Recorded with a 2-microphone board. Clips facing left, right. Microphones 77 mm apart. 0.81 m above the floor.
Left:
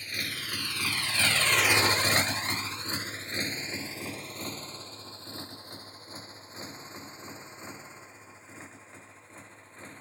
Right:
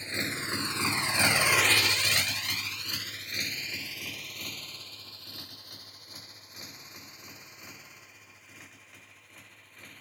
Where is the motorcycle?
25° right (ahead or behind); by 10.0 s 30° left (ahead or behind).